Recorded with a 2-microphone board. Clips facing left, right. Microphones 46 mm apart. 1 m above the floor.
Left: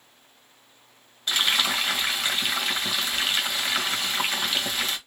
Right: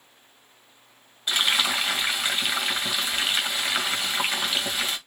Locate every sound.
1.3 s frying: 10° right (ahead or behind), 1.8 m